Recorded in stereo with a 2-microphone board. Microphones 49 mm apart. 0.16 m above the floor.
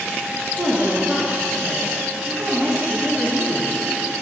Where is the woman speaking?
35° right (ahead or behind), 2.5 m.